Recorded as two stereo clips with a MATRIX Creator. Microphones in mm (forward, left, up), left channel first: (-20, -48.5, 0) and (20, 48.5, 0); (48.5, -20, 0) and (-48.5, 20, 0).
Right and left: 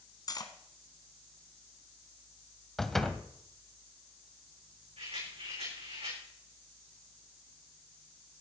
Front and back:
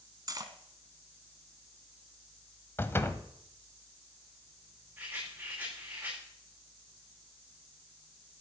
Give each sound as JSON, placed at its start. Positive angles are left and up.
{"t": 0.3, "sound": "cutlery clinking", "azimuth_deg": -155, "distance_m": 1.2}
{"t": 2.8, "sound": "a door slam", "azimuth_deg": -30, "distance_m": 0.9}
{"t": 5.0, "sound": "a rattle", "azimuth_deg": 85, "distance_m": 8.0}